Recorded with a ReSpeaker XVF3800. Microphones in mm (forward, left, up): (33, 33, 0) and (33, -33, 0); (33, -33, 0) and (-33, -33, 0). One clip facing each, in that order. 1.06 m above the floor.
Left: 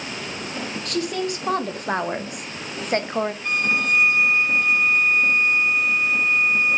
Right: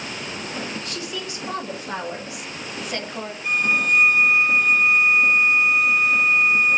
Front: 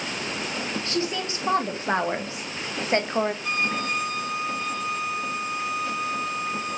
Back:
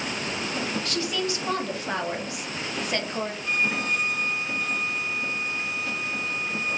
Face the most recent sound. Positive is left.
turn(degrees=-5)